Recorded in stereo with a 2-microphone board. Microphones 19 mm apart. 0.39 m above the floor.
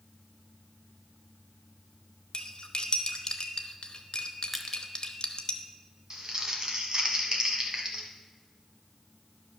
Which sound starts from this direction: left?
Cutlery clinking, at 2.3 s.